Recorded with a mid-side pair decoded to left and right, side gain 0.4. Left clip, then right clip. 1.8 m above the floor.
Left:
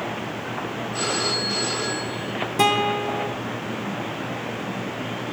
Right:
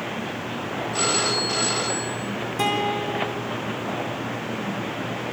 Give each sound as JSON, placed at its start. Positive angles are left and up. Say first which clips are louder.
{"t": 0.9, "sound": "a phone ringing", "louder": "right 2 dB", "azimuth_deg": -40, "distance_m": 7.0}
{"t": 2.6, "sound": "a guitar", "louder": "left 4 dB", "azimuth_deg": 45, "distance_m": 5.0}